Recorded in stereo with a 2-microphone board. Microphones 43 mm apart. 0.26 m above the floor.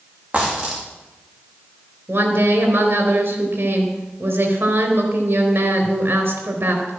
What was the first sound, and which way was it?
A dropped coin, 35° right (ahead or behind).